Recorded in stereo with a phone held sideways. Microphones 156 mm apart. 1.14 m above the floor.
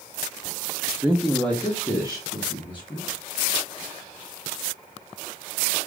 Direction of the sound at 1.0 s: 15° right (ahead or behind).